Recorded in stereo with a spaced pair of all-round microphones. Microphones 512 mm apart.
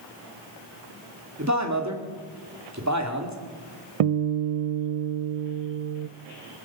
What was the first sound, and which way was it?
A man speaking, 30° right (ahead or behind).